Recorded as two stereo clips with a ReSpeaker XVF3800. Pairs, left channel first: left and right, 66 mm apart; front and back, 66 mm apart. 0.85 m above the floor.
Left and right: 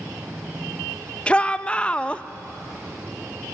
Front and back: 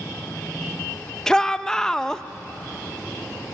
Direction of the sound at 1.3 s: 60° left.